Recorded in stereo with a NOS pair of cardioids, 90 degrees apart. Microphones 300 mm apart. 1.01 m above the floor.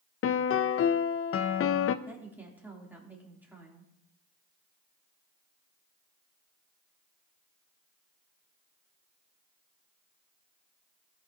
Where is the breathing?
I don't hear breathing.